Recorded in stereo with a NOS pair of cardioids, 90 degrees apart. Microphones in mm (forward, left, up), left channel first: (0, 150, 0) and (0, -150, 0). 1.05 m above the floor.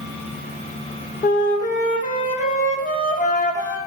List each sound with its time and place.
1.2 s a flute: 25° left, 0.6 m